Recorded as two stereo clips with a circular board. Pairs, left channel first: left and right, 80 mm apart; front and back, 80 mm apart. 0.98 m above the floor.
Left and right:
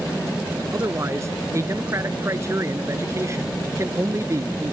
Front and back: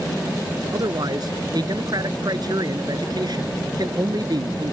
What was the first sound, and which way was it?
A man speaking, 145° right.